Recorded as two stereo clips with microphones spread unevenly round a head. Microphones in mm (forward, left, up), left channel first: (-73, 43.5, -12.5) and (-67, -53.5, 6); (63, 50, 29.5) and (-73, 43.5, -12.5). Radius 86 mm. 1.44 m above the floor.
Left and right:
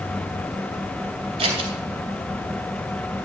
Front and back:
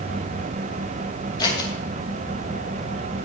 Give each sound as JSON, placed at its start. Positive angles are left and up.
{"t": 1.4, "sound": "scissors", "azimuth_deg": -55, "distance_m": 3.0}